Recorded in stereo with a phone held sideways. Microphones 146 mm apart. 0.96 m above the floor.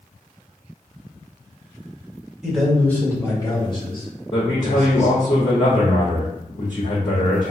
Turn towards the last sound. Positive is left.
turn(degrees=50)  # may be behind; listen again after turning